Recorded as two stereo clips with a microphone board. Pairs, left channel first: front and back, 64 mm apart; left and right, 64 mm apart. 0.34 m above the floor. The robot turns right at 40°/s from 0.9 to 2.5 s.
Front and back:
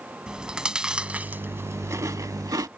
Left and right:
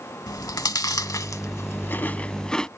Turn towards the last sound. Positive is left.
turn(degrees=170)